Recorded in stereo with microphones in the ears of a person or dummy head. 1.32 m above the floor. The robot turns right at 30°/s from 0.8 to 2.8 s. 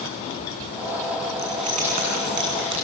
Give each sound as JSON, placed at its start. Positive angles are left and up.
{"t": 1.4, "sound": "keys jangling", "side_deg": -25, "distance_m": 8.0}